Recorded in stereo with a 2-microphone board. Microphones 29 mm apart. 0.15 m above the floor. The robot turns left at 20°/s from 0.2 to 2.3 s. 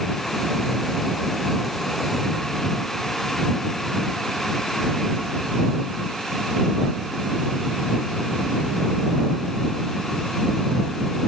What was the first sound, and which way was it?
Only background noise.